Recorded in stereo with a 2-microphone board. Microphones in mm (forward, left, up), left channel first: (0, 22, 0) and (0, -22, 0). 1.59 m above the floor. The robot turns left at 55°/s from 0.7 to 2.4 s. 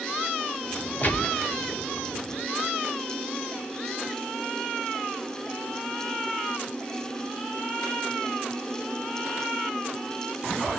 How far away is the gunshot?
About 0.8 m.